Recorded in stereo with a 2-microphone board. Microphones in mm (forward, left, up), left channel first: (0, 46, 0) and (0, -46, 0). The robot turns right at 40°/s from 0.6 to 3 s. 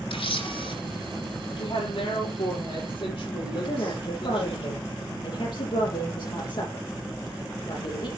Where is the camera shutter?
65° left (ahead or behind), 3 m.